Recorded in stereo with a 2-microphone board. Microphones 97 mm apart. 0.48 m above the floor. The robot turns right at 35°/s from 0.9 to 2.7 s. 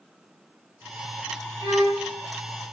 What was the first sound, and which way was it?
A violin, 50° right (ahead or behind).